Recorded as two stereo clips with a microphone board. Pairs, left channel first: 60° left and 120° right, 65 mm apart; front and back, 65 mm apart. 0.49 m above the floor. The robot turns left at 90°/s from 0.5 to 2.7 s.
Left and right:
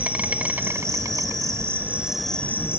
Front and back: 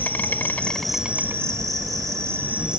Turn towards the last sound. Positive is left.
turn(degrees=105)